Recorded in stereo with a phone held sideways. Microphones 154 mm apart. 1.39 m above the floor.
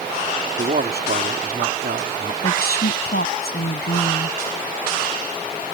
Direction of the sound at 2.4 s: 85° left.